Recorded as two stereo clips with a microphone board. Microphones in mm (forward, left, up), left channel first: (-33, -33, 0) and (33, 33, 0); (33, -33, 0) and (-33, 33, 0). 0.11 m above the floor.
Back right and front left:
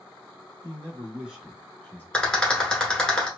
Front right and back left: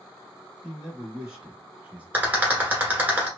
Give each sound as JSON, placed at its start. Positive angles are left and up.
{"t": 0.6, "sound": "a man speaking", "azimuth_deg": 45, "distance_m": 1.2}
{"t": 2.1, "sound": "a rattle", "azimuth_deg": 160, "distance_m": 1.3}